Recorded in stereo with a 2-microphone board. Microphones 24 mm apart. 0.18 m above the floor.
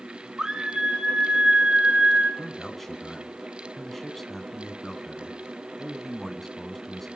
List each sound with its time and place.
0.4 s a scream: 25° right (ahead or behind), 1.8 m; by 2.3 s 60° right (ahead or behind), 3.5 m
2.4 s a man speaking: 15° left (ahead or behind), 1.7 m